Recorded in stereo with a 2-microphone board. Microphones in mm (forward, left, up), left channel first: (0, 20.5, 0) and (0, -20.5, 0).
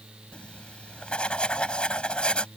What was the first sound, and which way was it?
Writing, 25° left (ahead or behind).